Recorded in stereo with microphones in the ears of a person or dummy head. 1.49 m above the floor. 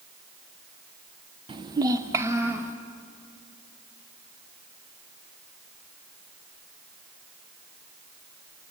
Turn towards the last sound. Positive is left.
turn(degrees=-10)  # may be behind; listen again after turning